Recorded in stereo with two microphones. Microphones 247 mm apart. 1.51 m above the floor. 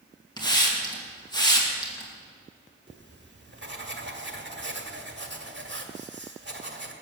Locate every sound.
0.4 s a hiss: 15° left (ahead or behind), 2.5 m
2.9 s writing: 45° right (ahead or behind), 1.6 m